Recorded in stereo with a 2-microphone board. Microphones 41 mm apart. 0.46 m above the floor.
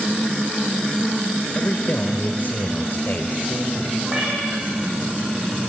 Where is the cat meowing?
Centre (ahead or behind), 9 m.